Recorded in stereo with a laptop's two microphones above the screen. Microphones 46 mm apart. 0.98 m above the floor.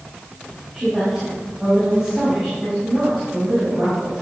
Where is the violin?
No violin in this recording.